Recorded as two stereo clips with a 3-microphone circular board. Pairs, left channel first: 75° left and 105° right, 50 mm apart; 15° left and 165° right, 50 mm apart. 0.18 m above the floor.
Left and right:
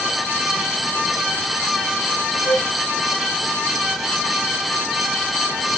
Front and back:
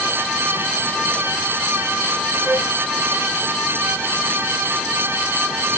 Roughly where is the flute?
Behind left.